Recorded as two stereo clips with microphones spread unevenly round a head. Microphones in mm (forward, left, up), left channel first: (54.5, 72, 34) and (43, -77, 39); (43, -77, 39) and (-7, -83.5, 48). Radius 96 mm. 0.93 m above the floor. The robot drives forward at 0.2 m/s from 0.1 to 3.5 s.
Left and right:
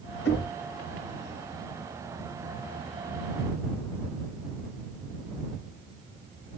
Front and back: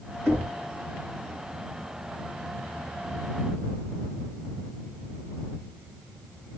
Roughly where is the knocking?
Left.